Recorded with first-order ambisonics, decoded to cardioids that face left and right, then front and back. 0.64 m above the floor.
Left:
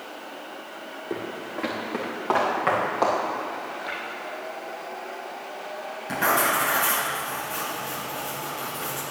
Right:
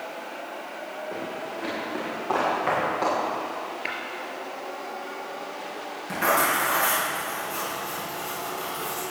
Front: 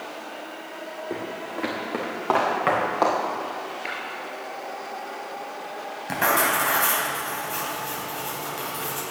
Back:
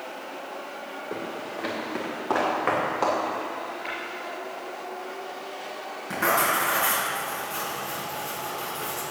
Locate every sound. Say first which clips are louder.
1.1 s footsteps: left 3 dB, front 1 dB; 45° left, 3.5 m; by 3.2 s 20° left, 4.5 m
3.9 s tapping: right 2 dB, front 2 dB; 75° right, 4.5 m
6.1 s writing: even, front 1 dB; 10° left, 3.5 m